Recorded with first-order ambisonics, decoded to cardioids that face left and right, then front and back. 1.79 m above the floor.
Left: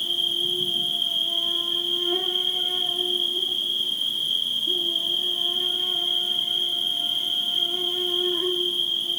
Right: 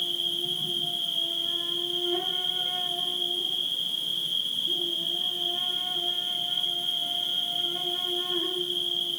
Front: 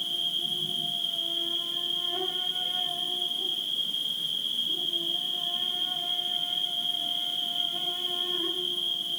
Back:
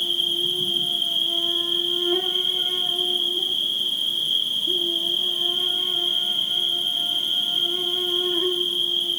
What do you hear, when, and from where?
0.0 s an insect: 145° left, 4 m